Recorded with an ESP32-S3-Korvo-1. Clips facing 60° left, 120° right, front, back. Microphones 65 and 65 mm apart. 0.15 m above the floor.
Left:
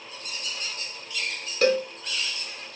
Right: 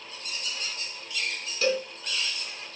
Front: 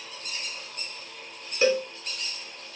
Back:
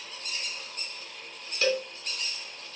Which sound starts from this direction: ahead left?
A cowbell, at 1.6 s.